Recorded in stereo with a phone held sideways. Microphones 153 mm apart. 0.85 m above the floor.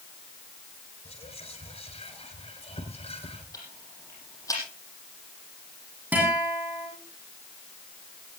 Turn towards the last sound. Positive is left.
turn(degrees=-10)  # may be behind; listen again after turning